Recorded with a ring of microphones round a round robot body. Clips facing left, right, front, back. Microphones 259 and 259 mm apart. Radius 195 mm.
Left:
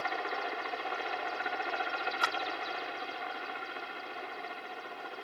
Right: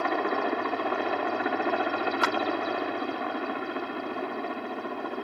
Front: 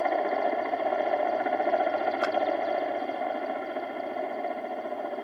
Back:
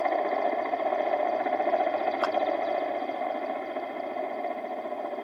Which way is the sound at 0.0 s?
90° right.